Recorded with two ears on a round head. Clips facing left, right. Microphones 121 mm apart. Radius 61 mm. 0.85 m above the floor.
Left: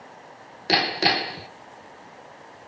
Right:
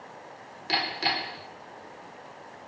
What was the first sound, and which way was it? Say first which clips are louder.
Hammering: left 7 dB; 65° left (ahead or behind).